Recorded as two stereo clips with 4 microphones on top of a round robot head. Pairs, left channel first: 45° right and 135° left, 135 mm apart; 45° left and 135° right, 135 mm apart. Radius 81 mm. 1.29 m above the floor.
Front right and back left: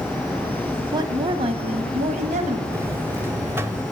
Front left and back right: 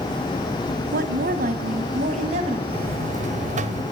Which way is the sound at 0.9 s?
160° right.